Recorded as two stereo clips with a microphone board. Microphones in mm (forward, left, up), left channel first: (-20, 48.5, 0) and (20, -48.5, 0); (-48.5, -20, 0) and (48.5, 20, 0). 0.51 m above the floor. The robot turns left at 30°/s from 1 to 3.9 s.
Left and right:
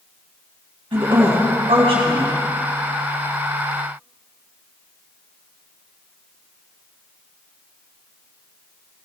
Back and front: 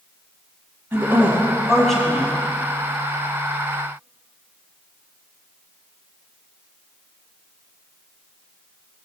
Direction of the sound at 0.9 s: 45° right.